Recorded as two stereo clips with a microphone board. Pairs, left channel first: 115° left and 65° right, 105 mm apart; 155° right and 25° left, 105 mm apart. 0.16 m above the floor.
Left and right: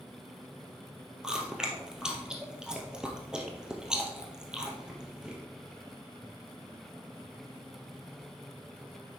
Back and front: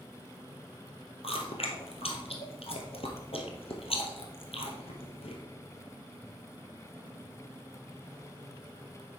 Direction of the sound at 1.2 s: 150° right.